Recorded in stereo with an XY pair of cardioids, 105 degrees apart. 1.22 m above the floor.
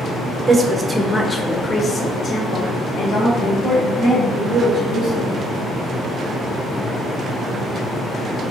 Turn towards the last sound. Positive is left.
turn(degrees=70)